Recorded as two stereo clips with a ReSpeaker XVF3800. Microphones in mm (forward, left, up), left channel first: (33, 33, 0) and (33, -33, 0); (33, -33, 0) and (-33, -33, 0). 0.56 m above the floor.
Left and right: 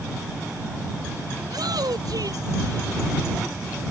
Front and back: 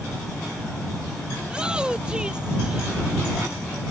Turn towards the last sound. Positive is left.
turn(degrees=-100)